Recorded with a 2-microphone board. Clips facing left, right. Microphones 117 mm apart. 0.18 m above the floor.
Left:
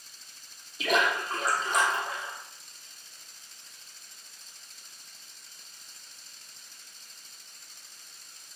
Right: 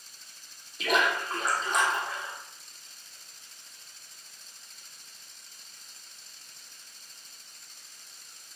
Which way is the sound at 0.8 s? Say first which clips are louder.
Even; centre (ahead or behind).